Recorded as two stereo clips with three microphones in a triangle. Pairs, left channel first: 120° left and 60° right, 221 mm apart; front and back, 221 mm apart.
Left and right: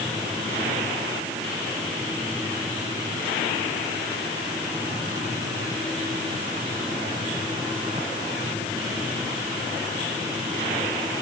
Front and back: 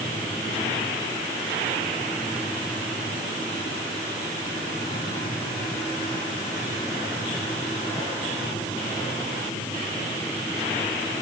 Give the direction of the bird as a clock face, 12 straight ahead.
I don't hear a bird.